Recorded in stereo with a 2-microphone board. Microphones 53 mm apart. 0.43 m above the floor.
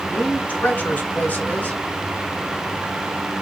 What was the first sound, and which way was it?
A woman speaking, 35° left (ahead or behind).